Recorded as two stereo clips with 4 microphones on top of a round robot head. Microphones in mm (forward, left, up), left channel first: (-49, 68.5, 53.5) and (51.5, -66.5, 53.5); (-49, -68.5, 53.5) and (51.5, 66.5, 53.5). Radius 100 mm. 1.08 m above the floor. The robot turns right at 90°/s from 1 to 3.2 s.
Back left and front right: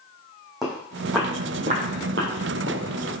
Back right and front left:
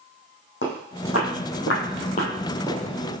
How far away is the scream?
I don't hear a scream.